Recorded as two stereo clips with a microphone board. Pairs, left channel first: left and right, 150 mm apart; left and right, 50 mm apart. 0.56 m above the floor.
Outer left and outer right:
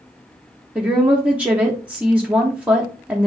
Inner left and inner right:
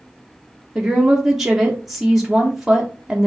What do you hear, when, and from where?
0.8 s a woman speaking: 10° right (ahead or behind), 0.6 m